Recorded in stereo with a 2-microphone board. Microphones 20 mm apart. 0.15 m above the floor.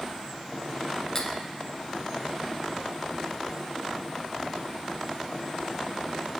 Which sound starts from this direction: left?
Cutlery clinking, at 1.1 s.